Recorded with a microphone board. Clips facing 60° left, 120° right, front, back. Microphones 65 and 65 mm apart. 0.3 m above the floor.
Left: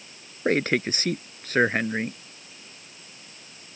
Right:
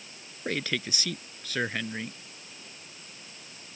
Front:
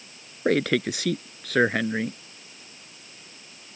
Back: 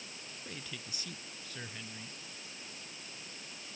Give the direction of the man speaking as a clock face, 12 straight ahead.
12 o'clock.